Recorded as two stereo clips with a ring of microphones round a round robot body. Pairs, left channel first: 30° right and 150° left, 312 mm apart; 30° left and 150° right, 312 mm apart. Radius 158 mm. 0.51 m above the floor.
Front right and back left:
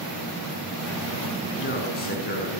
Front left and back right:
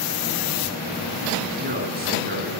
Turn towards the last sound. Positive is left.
turn(degrees=-90)